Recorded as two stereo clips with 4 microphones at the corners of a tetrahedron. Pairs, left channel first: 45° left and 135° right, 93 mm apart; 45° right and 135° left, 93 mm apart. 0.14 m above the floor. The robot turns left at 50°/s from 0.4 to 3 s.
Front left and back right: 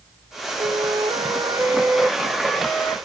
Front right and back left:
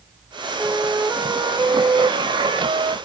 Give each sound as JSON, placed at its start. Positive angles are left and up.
{"t": 0.6, "sound": "a flute", "azimuth_deg": -140, "distance_m": 0.5}